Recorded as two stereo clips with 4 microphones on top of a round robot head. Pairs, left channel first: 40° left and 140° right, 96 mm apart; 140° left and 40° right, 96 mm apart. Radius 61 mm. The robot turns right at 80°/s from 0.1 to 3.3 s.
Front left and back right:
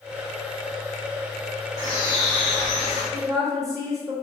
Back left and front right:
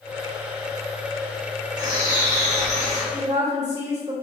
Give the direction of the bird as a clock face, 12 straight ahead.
3 o'clock.